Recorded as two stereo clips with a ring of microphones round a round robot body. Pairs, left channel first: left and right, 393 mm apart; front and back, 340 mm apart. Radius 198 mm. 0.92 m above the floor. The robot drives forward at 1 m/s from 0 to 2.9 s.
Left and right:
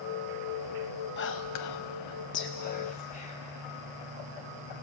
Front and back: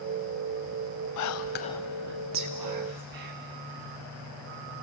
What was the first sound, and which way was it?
Whispering, 30° left.